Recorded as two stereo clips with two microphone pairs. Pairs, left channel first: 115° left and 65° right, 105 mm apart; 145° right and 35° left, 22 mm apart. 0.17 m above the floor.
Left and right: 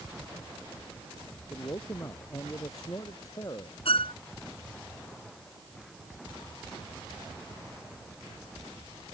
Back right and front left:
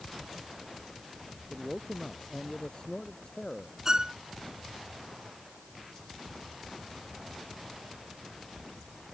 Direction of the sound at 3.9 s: 95° left.